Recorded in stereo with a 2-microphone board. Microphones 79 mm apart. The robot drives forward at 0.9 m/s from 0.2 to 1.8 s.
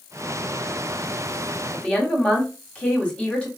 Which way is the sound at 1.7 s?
15° left (ahead or behind).